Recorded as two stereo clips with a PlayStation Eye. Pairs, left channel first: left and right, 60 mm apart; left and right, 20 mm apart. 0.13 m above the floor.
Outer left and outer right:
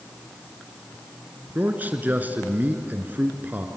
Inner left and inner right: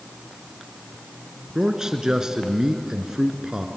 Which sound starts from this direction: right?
A man speaking, at 1.6 s.